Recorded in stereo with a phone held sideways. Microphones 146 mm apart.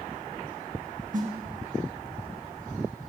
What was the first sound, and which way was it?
A snare drum, 55° right (ahead or behind).